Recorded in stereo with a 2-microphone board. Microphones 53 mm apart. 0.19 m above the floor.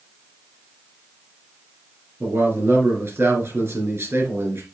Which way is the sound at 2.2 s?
50° right (ahead or behind).